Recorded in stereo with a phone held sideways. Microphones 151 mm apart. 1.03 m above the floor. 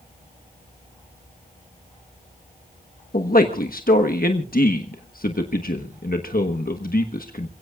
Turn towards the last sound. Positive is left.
turn(degrees=70)  # may be behind; listen again after turning